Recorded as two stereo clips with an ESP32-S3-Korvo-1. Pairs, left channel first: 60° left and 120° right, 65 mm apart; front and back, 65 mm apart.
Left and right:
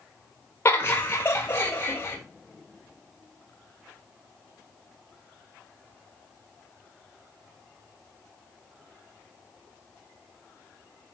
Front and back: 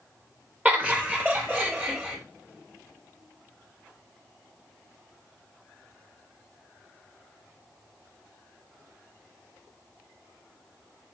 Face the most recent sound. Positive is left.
turn(degrees=120)